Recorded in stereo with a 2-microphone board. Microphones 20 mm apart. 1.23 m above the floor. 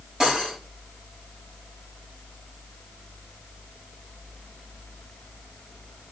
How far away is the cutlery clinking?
About 5 m.